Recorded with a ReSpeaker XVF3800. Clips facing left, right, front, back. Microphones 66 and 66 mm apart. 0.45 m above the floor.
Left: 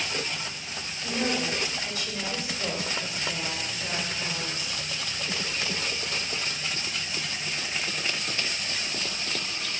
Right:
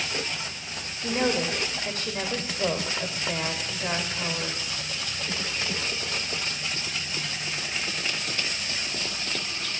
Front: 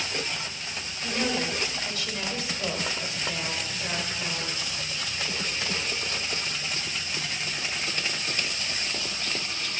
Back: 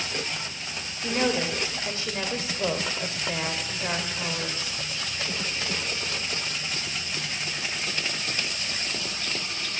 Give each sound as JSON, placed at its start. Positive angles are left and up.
{"t": 1.0, "sound": "a woman speaking", "azimuth_deg": -125, "distance_m": 1.4}